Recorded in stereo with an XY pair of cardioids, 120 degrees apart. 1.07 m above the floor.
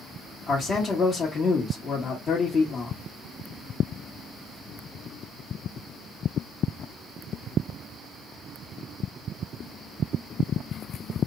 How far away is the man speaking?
About 1.1 m.